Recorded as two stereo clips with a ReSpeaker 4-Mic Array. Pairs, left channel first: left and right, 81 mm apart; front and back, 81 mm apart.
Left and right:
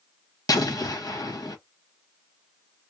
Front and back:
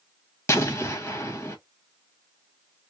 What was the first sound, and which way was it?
An explosion, 55° left.